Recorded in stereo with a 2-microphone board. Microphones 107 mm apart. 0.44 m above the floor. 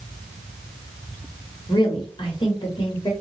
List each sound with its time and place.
1.7 s a woman speaking: 50° left (ahead or behind), 1.5 m; by 3.1 s 45° left (ahead or behind), 1.7 m